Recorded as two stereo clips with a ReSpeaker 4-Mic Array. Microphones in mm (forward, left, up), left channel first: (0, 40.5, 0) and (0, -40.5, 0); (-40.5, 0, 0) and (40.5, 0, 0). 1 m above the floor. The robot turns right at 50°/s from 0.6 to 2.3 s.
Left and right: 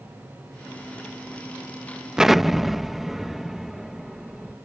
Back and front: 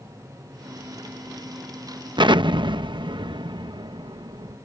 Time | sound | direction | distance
2.2 | an explosion | 10° right | ?